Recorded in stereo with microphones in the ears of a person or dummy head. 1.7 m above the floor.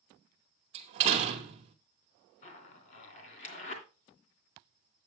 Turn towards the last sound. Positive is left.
turn(degrees=40)  # may be behind; listen again after turning